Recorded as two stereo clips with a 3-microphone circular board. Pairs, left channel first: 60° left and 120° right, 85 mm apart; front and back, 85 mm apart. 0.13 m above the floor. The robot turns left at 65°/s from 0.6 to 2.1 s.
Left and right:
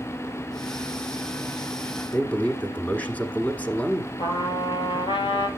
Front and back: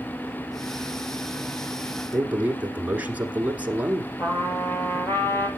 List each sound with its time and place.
2.1 s a man speaking: 120° left, 1.5 m
4.2 s a trumpet: 60° left, 2 m